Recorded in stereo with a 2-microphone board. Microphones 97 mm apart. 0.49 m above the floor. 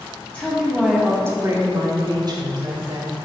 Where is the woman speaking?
15° left (ahead or behind), 1.4 m; by 3.1 s 50° right (ahead or behind), 3 m.